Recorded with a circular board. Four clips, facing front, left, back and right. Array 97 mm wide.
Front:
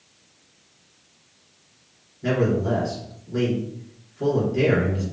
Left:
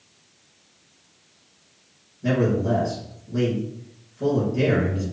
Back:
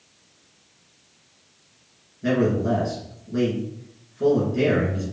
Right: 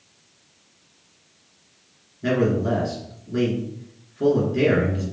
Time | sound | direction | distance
2.2 | a man speaking | 95° right | 2.5 m